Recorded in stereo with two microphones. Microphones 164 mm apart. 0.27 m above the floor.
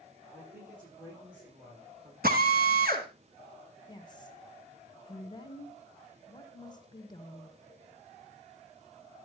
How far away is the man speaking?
About 9 m.